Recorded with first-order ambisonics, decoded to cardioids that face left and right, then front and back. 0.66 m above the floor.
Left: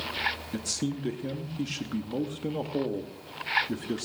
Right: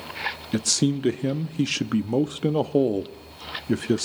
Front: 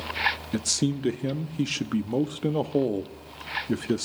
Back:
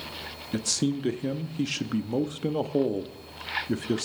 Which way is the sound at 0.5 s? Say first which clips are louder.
Right 9 dB, front 1 dB; 75° right.